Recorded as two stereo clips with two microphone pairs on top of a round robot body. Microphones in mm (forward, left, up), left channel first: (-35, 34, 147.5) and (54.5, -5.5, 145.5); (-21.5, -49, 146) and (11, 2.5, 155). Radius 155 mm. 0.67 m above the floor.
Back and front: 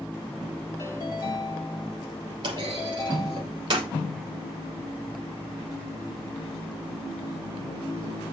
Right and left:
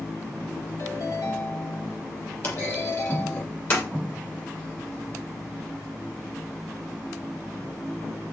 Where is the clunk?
65° right, 7 m.